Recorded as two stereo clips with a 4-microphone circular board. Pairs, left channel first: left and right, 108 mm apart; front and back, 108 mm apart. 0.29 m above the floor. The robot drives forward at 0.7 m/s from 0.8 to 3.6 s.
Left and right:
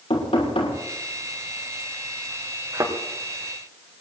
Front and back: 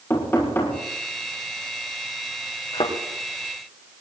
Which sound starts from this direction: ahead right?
A thud, at 2.7 s.